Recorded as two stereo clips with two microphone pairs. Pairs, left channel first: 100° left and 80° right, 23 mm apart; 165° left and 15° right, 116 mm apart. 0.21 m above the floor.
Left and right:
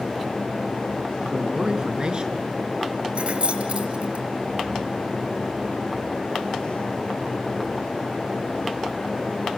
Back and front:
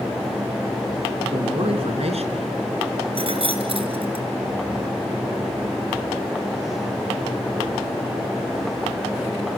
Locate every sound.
1.3 s a man speaking: 30° right, 2.5 m
3.1 s keys jangling: 50° right, 2.5 m